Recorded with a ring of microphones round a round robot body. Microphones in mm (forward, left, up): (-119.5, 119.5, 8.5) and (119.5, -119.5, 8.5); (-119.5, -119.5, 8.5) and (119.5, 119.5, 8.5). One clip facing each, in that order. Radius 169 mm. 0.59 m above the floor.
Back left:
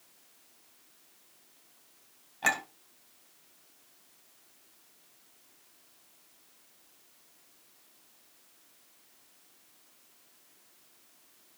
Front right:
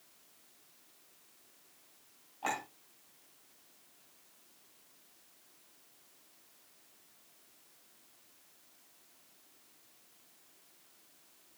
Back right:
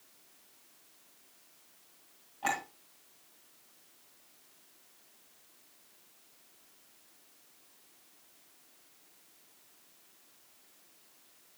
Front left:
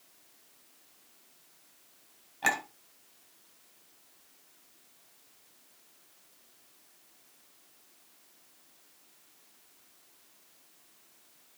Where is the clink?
90° left, 2.5 m.